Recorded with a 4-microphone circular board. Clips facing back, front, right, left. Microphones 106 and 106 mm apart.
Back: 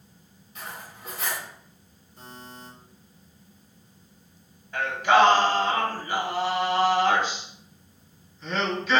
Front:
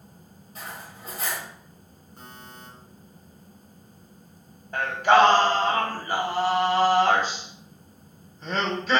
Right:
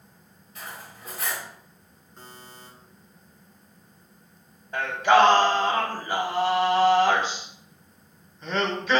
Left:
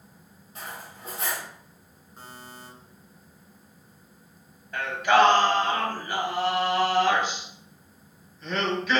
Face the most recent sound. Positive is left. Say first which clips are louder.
# front 1 dB, right 2 dB
turn(degrees=-40)